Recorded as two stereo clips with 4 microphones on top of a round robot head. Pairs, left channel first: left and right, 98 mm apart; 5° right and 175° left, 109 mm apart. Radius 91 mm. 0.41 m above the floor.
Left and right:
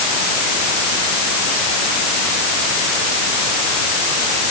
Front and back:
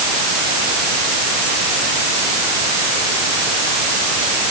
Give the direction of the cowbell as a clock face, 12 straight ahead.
I don't hear a cowbell.